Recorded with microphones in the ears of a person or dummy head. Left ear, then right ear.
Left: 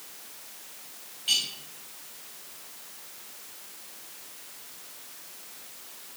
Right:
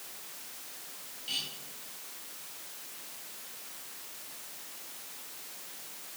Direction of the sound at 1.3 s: 20° left (ahead or behind).